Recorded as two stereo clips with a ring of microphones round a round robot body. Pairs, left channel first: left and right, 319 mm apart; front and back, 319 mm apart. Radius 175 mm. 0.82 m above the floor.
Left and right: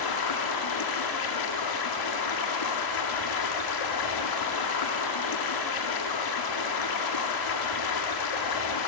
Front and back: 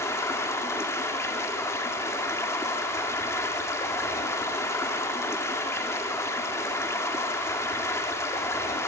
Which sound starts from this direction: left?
Running water, at 0.0 s.